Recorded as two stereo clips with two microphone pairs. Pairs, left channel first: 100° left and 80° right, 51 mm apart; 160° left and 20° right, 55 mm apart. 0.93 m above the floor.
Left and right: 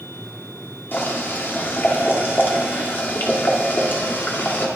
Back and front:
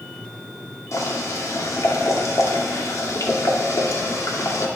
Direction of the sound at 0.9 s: 145° left.